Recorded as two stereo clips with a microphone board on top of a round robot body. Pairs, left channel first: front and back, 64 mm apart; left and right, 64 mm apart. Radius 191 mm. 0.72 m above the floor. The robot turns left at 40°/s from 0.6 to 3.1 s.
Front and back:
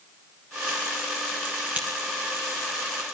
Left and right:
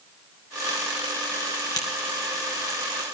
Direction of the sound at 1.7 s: 115° left.